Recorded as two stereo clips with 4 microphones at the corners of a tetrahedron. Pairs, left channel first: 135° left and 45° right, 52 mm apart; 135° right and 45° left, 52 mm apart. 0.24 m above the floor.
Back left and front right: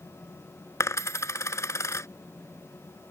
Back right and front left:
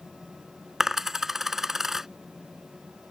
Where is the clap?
I don't hear a clap.